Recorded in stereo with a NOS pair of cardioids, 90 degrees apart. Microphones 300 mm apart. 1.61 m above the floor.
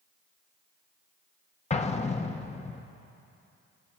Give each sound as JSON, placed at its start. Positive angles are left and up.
{"t": 1.7, "sound": "an explosion", "azimuth_deg": 20, "distance_m": 1.4}